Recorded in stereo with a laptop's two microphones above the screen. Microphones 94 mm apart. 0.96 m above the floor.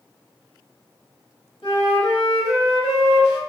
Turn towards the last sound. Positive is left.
turn(degrees=70)  # may be behind; listen again after turning